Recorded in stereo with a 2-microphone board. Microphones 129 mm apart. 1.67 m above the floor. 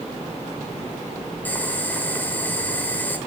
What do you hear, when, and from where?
1.4 s boiling: 15° left (ahead or behind), 1.5 m